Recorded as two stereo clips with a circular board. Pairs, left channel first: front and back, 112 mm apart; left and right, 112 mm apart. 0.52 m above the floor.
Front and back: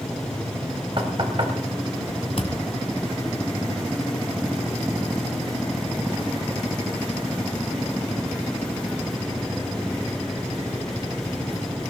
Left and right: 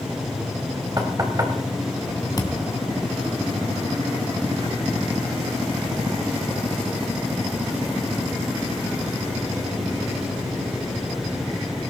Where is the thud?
35° left, 1.9 m.